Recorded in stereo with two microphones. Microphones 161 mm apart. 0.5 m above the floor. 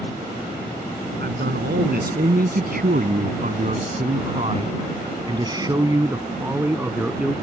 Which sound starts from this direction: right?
A man speaking, at 1.2 s.